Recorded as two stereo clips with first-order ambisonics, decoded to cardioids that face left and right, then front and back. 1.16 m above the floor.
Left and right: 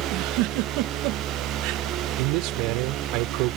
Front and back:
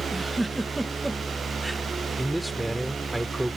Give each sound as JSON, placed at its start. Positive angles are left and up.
{"t": 0.1, "sound": "a giggle", "azimuth_deg": -100}
{"t": 2.2, "sound": "a man speaking", "azimuth_deg": -95}